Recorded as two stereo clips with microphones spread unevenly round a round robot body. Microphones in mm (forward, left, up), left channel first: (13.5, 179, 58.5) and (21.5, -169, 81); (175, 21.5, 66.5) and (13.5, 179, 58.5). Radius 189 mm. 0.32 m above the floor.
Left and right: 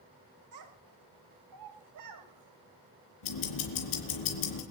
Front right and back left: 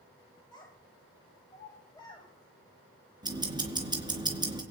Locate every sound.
0.5 s a child speaking: 120° right, 1.7 m
3.2 s ticking: 65° left, 4 m